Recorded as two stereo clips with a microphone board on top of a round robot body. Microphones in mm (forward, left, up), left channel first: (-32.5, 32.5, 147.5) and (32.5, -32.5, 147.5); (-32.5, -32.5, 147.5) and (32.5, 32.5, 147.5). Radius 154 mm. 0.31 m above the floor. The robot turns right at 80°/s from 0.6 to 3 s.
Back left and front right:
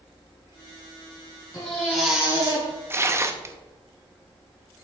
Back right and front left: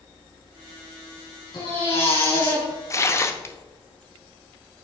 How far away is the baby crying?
About 3 m.